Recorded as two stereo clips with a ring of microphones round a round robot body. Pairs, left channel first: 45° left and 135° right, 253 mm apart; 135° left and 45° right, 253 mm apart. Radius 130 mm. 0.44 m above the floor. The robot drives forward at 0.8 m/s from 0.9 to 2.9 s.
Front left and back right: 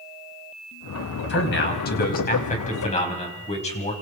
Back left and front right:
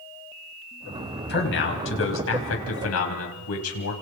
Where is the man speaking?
90° left, 3.5 m; by 3.9 s 110° left, 4 m.